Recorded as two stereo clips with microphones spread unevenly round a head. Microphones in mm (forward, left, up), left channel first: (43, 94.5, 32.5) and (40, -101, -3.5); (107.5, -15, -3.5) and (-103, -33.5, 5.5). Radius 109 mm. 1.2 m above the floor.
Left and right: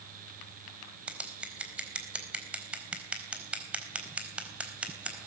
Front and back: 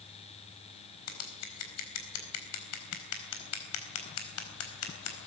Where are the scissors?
5° right, 4 m.